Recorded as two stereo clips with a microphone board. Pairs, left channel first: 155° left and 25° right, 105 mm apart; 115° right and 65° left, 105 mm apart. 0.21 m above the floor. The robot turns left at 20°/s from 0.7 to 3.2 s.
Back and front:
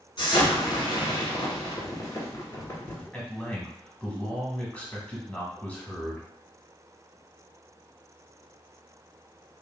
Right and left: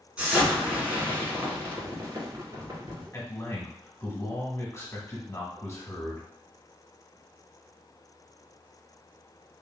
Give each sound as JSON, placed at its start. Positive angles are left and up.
{"t": 0.2, "sound": "an explosion", "azimuth_deg": 145, "distance_m": 1.5}
{"t": 3.1, "sound": "a man speaking", "azimuth_deg": -140, "distance_m": 1.4}